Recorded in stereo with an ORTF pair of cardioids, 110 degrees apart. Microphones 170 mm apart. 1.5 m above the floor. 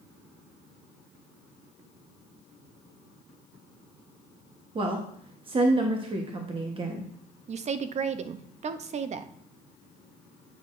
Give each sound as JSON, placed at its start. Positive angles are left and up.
{"t": 4.8, "sound": "a woman speaking", "azimuth_deg": -30, "distance_m": 1.0}
{"t": 7.5, "sound": "a woman speaking", "azimuth_deg": -40, "distance_m": 0.6}